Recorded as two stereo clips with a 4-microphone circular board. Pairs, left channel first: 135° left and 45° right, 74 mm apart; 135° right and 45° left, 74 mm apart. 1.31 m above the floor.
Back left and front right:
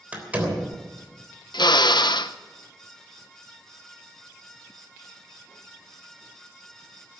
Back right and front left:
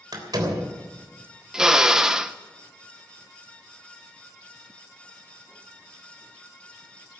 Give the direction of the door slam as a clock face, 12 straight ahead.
11 o'clock.